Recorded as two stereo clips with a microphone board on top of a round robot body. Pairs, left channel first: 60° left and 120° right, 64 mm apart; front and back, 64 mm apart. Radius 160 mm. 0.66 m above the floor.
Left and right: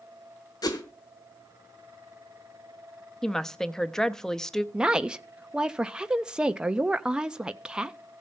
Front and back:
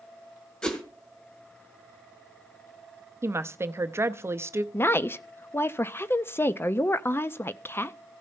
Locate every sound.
0.6 s a whoosh: 75° left, 1.2 m
3.2 s a woman speaking: 140° left, 0.8 m
4.7 s a woman speaking: 50° right, 0.8 m